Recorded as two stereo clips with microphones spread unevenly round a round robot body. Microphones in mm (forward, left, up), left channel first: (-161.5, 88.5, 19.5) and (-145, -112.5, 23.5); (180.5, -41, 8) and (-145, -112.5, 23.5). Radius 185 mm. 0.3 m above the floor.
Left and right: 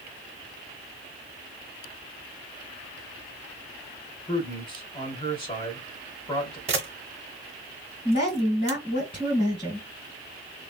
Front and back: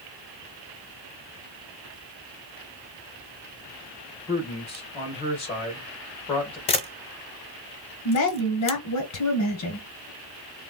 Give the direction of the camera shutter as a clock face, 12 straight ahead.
2 o'clock.